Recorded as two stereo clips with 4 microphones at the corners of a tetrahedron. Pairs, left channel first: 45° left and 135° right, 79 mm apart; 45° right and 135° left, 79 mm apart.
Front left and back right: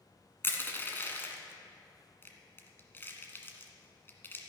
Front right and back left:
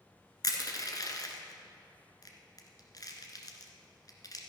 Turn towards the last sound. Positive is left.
turn(degrees=-15)